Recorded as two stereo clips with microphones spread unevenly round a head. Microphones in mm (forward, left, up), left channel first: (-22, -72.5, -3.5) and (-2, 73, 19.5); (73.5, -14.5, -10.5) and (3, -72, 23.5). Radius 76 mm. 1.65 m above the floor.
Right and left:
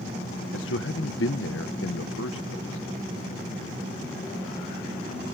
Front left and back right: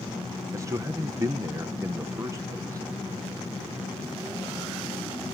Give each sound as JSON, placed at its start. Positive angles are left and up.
{"t": 0.5, "sound": "a man speaking", "azimuth_deg": -95}